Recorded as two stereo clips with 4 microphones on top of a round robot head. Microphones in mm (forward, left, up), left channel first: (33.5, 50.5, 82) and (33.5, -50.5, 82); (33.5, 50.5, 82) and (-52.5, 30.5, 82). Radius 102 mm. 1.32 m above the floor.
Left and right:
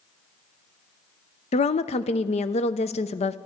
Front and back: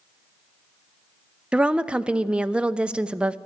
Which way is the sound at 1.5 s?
115° left.